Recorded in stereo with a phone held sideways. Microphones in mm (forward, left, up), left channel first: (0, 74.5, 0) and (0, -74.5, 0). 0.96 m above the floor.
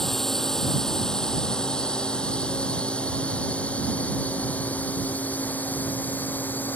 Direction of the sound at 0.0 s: 5° left (ahead or behind).